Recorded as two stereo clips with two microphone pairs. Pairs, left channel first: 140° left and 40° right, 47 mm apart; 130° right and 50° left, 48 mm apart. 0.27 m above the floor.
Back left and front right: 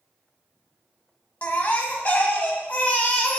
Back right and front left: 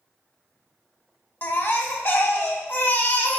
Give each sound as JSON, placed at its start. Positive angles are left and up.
{"t": 1.4, "sound": "a baby crying", "azimuth_deg": -170, "distance_m": 0.7}